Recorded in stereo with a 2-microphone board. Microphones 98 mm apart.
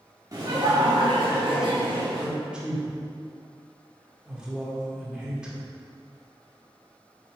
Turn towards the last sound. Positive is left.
turn(degrees=-10)  # may be behind; listen again after turning